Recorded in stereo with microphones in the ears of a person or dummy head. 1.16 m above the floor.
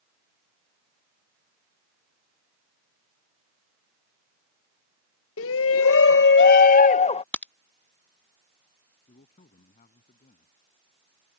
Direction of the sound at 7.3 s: 10° left (ahead or behind).